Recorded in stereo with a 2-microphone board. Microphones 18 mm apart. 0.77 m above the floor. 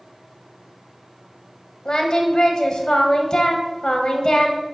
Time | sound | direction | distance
1.9 | singing | 45° left (ahead or behind) | 1.1 m